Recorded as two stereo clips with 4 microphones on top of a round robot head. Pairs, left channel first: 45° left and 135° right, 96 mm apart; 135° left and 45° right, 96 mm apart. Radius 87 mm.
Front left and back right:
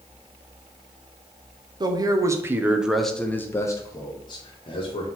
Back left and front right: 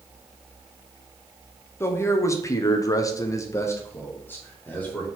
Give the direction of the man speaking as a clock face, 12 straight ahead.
6 o'clock.